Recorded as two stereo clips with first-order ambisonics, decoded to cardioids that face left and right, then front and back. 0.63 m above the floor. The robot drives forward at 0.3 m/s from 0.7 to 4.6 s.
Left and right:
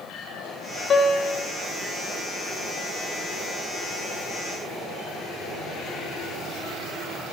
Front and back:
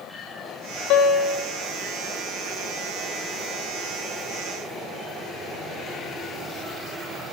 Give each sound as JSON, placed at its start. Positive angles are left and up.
{"t": 0.9, "sound": "a piano", "azimuth_deg": 30, "distance_m": 1.0}